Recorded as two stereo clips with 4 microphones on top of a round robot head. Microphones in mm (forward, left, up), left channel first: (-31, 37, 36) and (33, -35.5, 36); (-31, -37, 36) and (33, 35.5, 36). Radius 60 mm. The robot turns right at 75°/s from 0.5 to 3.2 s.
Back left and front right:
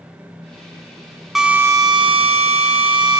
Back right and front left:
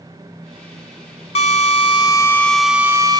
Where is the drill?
135° right, 3.5 m; by 3.2 s 5° left, 3.5 m.